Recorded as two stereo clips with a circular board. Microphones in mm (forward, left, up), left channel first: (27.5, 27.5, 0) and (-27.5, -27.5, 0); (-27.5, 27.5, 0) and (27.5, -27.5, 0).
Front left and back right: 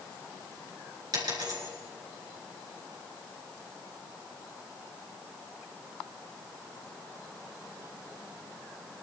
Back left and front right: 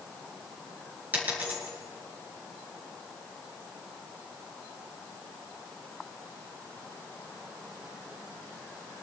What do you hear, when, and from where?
1.1 s a dropped coin: 110° right, 4 m